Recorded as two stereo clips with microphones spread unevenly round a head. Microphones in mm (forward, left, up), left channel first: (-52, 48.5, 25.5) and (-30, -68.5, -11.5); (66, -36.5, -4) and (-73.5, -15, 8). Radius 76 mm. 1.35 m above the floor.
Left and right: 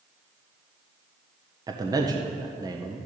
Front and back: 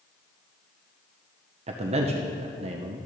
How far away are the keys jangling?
No keys jangling in this recording.